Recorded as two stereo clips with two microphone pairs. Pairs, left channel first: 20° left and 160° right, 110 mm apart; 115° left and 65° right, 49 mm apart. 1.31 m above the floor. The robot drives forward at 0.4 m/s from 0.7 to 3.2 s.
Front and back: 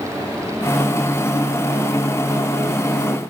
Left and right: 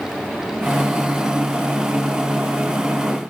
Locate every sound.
Only background noise.